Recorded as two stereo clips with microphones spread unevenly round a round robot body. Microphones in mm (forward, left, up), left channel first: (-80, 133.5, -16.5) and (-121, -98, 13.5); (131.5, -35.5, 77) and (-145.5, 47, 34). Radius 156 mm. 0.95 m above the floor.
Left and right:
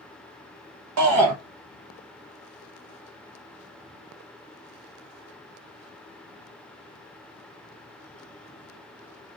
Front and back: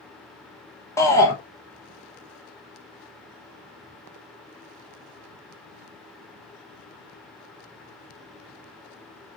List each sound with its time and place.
1.0 s a shout: 100° right, 0.9 m